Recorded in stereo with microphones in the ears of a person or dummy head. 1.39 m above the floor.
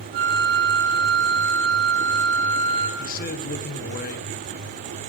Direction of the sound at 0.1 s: 50° right (ahead or behind).